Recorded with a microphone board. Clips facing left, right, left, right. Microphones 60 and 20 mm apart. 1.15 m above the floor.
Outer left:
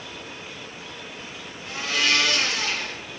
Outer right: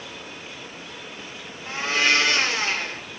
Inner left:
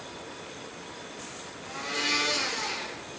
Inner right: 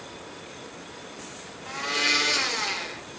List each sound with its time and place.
1.7 s a blender: 30° right (ahead or behind), 0.6 m